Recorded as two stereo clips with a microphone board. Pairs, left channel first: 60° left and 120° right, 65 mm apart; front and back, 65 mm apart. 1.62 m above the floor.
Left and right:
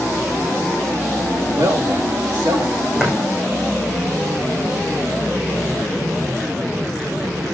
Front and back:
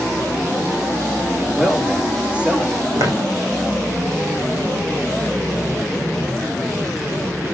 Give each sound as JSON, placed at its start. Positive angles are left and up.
{"t": 1.5, "sound": "a man speaking", "azimuth_deg": -110, "distance_m": 2.5}
{"t": 3.0, "sound": "footsteps", "azimuth_deg": 165, "distance_m": 5.5}